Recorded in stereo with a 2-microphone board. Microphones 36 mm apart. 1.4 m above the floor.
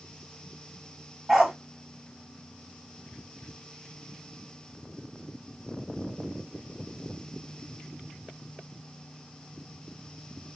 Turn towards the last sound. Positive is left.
turn(degrees=-20)  # may be behind; listen again after turning